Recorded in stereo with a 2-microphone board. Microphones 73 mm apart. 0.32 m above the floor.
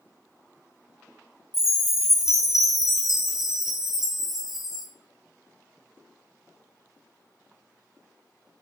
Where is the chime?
5° right (ahead or behind), 1.6 m.